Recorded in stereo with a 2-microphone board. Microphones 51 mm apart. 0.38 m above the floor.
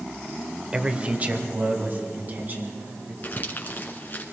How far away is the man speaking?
About 0.9 m.